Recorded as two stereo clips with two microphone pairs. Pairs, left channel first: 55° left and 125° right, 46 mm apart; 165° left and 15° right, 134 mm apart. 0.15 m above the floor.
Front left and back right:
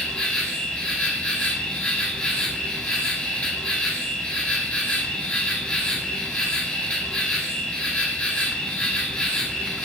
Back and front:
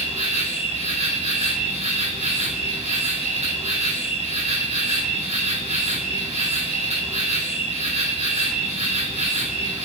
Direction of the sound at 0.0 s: 5° right.